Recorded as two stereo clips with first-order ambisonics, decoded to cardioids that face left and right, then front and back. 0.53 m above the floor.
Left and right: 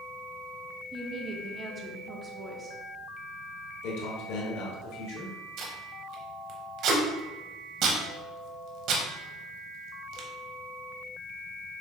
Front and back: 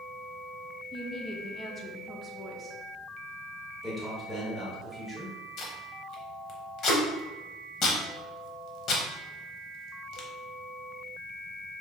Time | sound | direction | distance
0.9 | a woman speaking | 50° right | 0.6 m
3.8 | a man speaking | 95° left | 1.6 m
5.6 | tape being pulled | 50° right | 0.9 m